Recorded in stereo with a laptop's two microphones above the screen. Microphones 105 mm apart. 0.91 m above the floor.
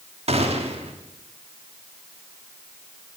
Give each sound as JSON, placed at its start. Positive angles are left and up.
{"t": 0.3, "sound": "a gunshot", "side_deg": -80, "distance_m": 1.7}